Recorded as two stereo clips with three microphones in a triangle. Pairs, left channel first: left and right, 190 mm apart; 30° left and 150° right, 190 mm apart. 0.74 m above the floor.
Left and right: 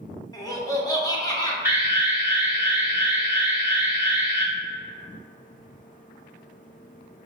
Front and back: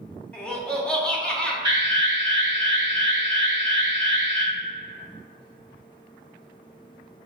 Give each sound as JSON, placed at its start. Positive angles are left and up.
{"t": 0.3, "sound": "laughter", "azimuth_deg": 100, "distance_m": 0.8}
{"t": 1.6, "sound": "an alarm", "azimuth_deg": -150, "distance_m": 1.1}